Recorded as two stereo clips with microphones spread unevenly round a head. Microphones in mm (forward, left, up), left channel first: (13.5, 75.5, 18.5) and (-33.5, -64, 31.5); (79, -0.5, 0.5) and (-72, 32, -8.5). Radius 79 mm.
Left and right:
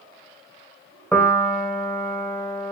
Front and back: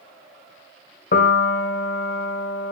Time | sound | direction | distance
1.1 | a piano | 15° right | 2 m